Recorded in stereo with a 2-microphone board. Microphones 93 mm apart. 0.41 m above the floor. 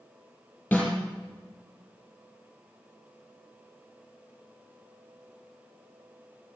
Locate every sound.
0.7 s a snare drum: 15° left (ahead or behind), 4.5 m